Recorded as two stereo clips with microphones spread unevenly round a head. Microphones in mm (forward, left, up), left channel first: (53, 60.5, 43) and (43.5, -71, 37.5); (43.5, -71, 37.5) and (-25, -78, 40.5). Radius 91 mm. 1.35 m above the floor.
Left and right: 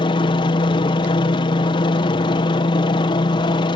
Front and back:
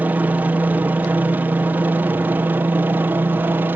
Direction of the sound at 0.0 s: 125° left.